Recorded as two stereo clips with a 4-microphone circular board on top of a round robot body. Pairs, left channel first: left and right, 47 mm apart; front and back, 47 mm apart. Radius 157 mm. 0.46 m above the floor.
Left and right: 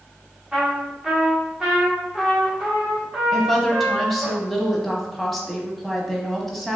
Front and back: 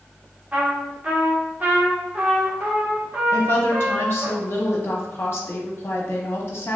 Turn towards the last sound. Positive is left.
turn(degrees=0)